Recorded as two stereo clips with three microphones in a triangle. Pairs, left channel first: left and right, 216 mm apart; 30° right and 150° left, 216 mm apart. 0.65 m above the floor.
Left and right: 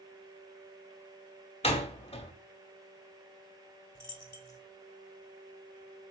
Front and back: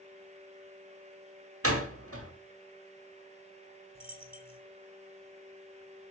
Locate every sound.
1.6 s a door slam: 150° left, 1.1 m
4.0 s a dropped coin: 30° left, 1.4 m